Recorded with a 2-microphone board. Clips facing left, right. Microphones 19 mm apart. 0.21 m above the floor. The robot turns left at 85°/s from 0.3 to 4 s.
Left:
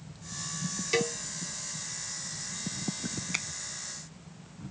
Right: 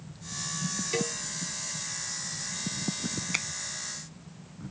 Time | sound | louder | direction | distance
0.9 | a cowbell | left 4 dB | 25° left (ahead or behind) | ?
3.3 | a finger snap | right 2 dB | 10° right (ahead or behind) | ?